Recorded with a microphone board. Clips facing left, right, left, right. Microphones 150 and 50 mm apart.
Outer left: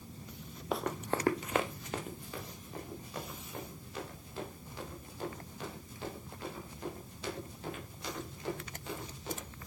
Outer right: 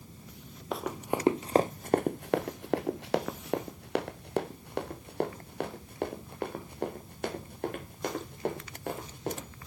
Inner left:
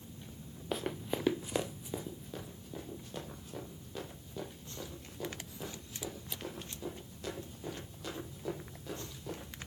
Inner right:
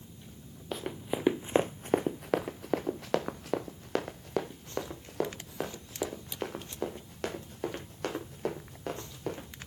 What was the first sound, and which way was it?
Running footsteps, centre (ahead or behind).